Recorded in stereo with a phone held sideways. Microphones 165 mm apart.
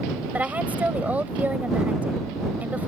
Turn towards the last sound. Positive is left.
turn(degrees=-10)  # may be behind; listen again after turning